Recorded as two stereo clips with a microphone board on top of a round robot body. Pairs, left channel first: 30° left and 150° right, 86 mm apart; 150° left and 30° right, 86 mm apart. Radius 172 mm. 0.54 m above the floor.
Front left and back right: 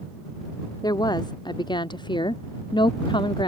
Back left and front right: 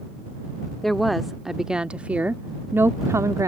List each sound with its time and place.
0.8 s a woman speaking: 65° left; by 3.5 s 15° left